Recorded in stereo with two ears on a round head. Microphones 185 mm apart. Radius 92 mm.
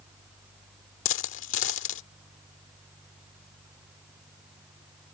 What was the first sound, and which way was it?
A dropped coin, 65° left (ahead or behind).